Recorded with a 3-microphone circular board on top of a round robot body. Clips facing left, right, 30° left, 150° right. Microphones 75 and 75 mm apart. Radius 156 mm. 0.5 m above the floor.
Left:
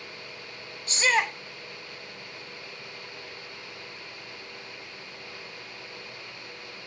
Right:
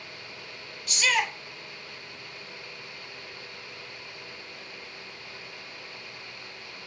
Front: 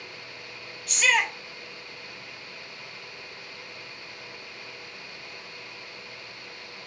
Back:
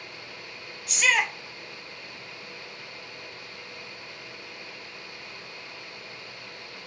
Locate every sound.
0.9 s a shout: 125° left, 1.0 m